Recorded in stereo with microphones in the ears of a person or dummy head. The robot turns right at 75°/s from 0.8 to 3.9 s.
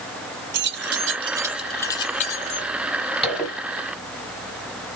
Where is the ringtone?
I don't hear a ringtone.